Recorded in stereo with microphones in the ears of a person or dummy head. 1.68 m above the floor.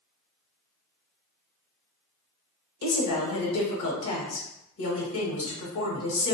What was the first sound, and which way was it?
A woman speaking, 70° left (ahead or behind).